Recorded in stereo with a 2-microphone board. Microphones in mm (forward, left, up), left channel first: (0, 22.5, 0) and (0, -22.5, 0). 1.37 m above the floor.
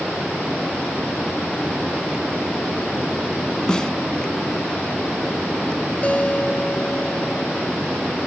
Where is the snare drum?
15° left (ahead or behind).